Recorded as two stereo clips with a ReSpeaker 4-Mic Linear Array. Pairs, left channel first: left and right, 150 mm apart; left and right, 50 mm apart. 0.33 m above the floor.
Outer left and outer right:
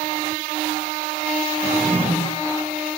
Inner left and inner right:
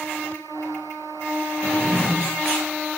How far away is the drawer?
About 4 m.